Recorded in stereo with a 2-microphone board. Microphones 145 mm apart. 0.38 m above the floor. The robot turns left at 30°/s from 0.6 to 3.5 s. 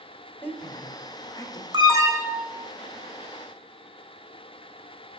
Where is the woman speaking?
15° left (ahead or behind), 1.5 m; by 1.6 s 25° left (ahead or behind), 1.5 m.